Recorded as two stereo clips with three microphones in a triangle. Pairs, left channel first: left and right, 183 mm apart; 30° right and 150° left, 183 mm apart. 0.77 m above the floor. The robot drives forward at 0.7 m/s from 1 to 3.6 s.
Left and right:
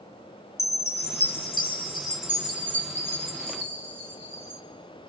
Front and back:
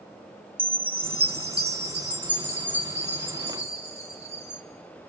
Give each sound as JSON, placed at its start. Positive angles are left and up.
{"t": 0.6, "sound": "a chime", "azimuth_deg": 115, "distance_m": 1.8}